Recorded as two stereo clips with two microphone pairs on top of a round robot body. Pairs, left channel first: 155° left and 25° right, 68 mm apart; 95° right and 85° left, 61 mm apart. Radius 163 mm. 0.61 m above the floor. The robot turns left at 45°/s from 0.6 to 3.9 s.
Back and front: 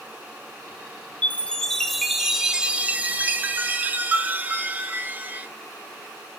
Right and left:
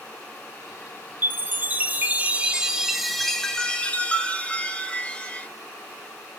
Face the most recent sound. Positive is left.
turn(degrees=-35)